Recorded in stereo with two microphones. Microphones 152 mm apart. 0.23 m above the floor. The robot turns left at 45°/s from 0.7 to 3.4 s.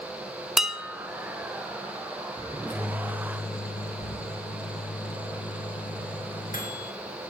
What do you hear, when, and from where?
0.6 s dishes clattering: 5° right (ahead or behind), 0.9 m; by 1.0 s 10° right (ahead or behind), 0.9 m
2.5 s a microwave: 115° left, 3.5 m; by 6.9 s 75° left, 3.5 m